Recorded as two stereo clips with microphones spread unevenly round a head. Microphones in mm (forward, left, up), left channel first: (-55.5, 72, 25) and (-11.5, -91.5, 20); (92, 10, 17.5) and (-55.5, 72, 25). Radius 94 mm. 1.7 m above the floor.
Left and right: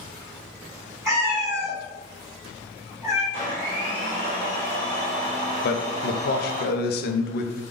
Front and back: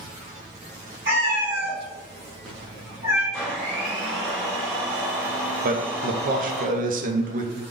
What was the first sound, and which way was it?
A cat meowing, 145° right.